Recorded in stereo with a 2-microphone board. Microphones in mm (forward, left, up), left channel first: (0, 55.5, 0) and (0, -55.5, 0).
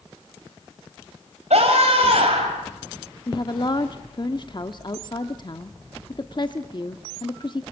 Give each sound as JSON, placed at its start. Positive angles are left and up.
{"t": 1.5, "sound": "a scream", "side_deg": -75, "distance_m": 3.0}
{"t": 3.3, "sound": "a woman speaking", "side_deg": 45, "distance_m": 1.0}